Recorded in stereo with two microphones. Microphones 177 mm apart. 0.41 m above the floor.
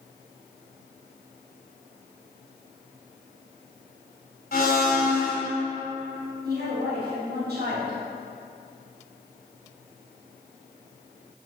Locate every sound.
4.5 s a blender: 60° left (ahead or behind), 1.9 m
6.4 s a woman speaking: 60° right (ahead or behind), 2.5 m